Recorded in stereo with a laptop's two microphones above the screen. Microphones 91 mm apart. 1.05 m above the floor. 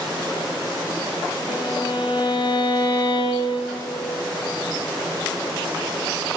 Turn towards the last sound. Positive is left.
turn(degrees=65)  # may be behind; listen again after turning